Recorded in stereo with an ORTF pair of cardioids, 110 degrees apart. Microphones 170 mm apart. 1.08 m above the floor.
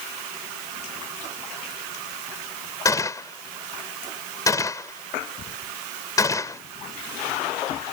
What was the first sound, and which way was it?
A gunshot, 20° left.